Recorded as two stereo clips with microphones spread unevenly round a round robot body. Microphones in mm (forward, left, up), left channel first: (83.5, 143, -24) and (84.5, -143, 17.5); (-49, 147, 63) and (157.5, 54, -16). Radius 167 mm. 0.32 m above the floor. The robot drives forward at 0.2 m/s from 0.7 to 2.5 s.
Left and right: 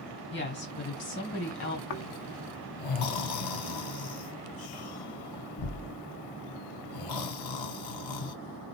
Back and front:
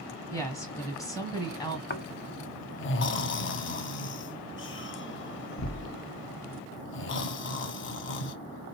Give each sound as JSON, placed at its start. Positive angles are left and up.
{"t": 0.3, "sound": "a woman speaking", "azimuth_deg": 65, "distance_m": 2.0}
{"t": 1.9, "sound": "snoring", "azimuth_deg": 105, "distance_m": 0.5}